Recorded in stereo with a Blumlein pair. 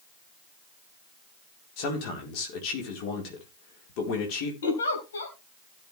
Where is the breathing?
No breathing in this recording.